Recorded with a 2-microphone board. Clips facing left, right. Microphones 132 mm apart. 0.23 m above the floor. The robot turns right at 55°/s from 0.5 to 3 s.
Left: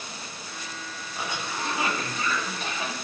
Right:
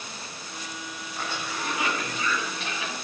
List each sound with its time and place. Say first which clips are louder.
1.2 s a cough: left 1 dB; 15° left, 1.5 m; by 2.9 s 115° left, 1.5 m